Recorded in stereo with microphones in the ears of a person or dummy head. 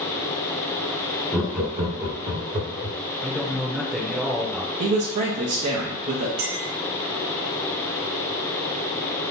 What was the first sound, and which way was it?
Laughter, 10° right (ahead or behind).